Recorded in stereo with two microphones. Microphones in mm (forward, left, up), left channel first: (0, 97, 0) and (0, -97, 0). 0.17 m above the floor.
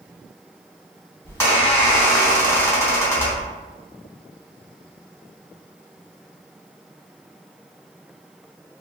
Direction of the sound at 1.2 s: 15° left (ahead or behind).